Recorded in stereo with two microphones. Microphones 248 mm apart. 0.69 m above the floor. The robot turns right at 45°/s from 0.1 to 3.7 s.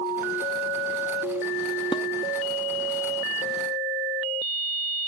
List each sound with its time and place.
1.9 s dishes clattering: 20° left (ahead or behind), 0.6 m; by 2.0 s 25° left (ahead or behind), 0.6 m